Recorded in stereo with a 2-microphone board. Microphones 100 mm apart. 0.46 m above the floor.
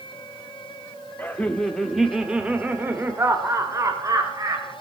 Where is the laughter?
15° left (ahead or behind), 1.2 m; by 4.7 s 35° right (ahead or behind), 2.5 m.